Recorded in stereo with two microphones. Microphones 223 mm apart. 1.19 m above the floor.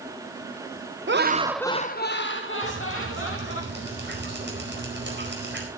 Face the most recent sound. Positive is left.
turn(degrees=-55)  # may be behind; listen again after turning